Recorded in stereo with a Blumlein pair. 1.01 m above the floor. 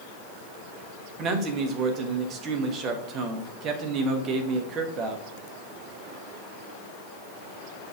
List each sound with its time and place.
1.2 s a man speaking: 30° right, 1.3 m